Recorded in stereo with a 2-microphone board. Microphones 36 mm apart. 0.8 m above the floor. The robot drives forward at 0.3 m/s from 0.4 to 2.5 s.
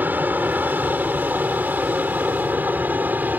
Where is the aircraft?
55° right (ahead or behind).